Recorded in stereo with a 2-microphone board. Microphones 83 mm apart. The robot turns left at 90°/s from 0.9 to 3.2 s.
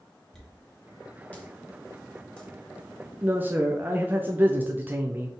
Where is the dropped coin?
5° left (ahead or behind), 1.1 m; by 2.5 s 10° left (ahead or behind), 1.1 m.